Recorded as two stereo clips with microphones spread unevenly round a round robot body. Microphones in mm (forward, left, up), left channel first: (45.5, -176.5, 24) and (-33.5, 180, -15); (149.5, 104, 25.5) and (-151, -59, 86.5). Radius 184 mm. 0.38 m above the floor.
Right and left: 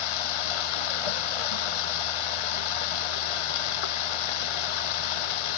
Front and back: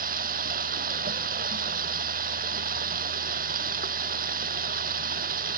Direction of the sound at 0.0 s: 85° right.